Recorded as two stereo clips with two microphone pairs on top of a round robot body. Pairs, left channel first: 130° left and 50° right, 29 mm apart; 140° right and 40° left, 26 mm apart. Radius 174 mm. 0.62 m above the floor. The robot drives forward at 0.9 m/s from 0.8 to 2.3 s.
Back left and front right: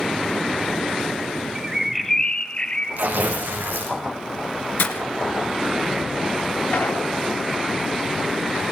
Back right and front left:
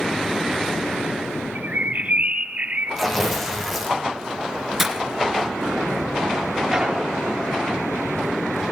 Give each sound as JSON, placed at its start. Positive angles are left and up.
{"t": 1.6, "sound": "a bird", "azimuth_deg": 25, "distance_m": 1.0}
{"t": 3.0, "sound": "tearing paper", "azimuth_deg": -55, "distance_m": 6.5}
{"t": 4.8, "sound": "breaking glass", "azimuth_deg": 120, "distance_m": 1.7}
{"t": 6.7, "sound": "an explosion", "azimuth_deg": 95, "distance_m": 7.0}